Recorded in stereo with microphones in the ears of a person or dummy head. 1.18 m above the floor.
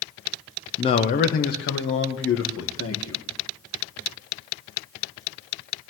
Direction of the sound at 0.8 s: 25° left (ahead or behind).